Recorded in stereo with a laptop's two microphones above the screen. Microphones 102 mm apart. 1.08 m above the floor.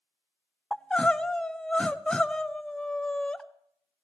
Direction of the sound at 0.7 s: 10° left (ahead or behind).